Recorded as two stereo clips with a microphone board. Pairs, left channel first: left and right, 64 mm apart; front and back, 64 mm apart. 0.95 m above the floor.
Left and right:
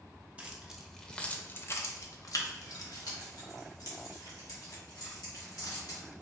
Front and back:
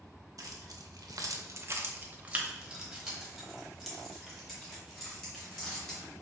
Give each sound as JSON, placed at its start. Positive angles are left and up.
{"t": 0.4, "sound": "keys jangling", "azimuth_deg": -160, "distance_m": 0.7}